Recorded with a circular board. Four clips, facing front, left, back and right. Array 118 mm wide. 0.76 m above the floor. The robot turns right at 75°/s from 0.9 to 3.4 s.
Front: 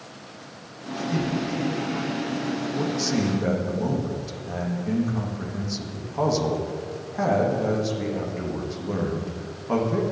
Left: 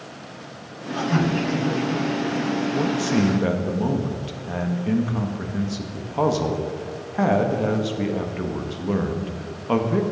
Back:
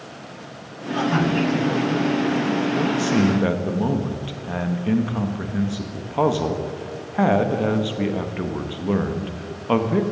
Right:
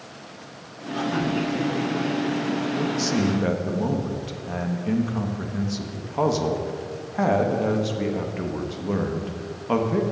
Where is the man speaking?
120° left, 1.0 m; by 10.0 s 170° left, 1.0 m.